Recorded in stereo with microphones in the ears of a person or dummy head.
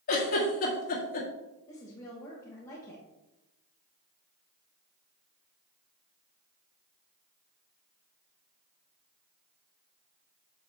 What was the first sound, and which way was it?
A giggle, 50° left (ahead or behind).